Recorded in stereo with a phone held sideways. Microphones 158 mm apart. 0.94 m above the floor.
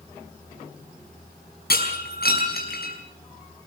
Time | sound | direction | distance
1.7 | breaking glass | 75° left (ahead or behind) | 5.5 m